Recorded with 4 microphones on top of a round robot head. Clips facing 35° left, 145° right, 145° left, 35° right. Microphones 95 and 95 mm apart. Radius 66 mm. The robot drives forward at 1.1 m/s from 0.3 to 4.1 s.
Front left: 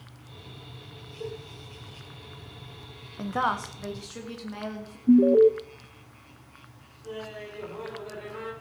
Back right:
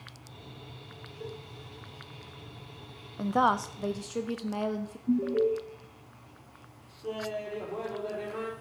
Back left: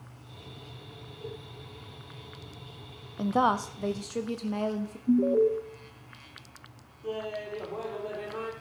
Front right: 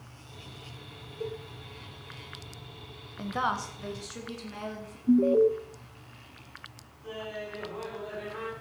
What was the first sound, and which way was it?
A cowbell, 35° right.